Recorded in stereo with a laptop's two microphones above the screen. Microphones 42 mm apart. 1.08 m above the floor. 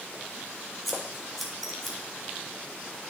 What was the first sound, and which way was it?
Scissors, centre (ahead or behind).